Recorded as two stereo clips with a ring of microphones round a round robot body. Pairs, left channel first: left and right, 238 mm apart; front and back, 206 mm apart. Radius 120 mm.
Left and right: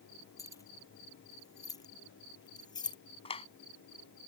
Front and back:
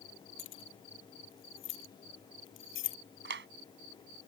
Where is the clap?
155° left.